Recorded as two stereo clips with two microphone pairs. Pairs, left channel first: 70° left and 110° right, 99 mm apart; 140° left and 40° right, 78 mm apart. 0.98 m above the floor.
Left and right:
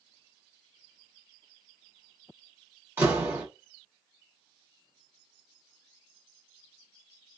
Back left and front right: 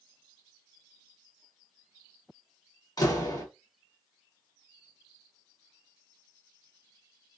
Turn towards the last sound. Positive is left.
turn(degrees=180)